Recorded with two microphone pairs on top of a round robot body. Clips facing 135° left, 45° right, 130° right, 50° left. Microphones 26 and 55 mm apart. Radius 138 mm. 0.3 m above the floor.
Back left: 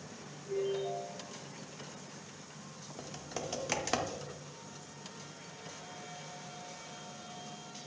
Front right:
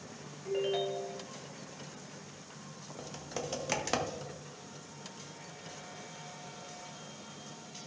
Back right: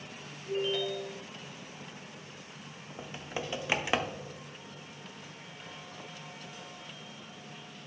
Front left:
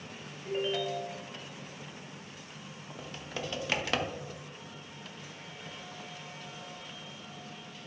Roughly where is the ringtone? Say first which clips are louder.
Front right 2 dB, even; ahead.